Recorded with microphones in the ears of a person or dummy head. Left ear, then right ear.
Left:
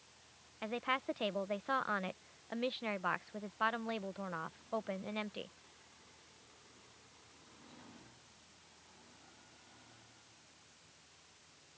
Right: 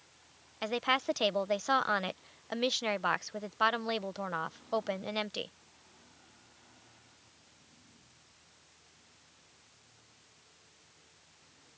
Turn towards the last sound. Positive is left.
turn(degrees=-85)